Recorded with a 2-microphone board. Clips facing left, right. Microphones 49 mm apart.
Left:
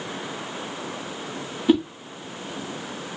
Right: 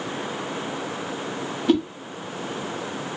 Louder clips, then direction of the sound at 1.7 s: Left 1 dB; 10° left (ahead or behind).